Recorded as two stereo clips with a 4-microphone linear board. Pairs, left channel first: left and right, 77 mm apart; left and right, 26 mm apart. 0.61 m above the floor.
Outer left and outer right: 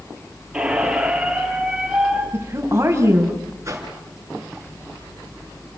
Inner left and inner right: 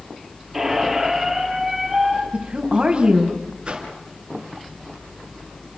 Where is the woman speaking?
35° right (ahead or behind), 3 m.